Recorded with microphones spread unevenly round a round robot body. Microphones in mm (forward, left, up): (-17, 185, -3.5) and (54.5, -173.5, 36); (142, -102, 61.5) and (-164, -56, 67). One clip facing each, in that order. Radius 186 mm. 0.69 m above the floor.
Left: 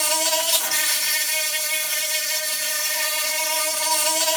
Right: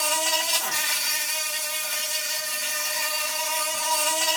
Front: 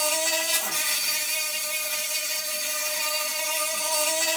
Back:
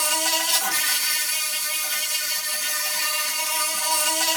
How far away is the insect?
About 1.5 m.